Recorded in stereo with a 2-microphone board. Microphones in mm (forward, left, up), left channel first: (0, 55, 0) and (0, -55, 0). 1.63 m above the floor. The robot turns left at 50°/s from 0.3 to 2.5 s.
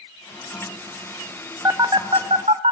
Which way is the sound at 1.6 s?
25° right (ahead or behind).